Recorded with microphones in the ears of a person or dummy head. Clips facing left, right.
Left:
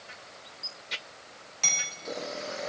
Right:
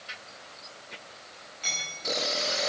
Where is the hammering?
65° left (ahead or behind), 8.5 m.